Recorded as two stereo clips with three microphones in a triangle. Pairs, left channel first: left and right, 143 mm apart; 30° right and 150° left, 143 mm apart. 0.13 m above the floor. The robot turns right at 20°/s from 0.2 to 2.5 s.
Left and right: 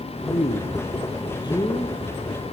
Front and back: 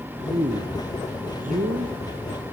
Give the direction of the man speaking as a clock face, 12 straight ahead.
8 o'clock.